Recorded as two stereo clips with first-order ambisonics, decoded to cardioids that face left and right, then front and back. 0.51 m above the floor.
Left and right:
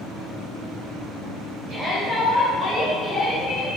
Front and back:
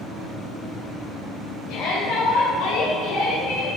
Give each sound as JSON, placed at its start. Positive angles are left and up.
{"t": 1.7, "sound": "a shout", "azimuth_deg": -35, "distance_m": 2.5}